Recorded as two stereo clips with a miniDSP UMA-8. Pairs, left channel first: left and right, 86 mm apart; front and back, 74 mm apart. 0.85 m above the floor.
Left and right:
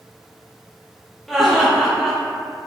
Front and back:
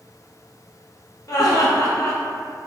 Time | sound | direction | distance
1.3 | laughter | straight ahead | 0.6 m